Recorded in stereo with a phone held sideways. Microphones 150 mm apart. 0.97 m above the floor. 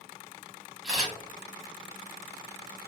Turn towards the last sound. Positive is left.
turn(degrees=-5)  # may be behind; listen again after turning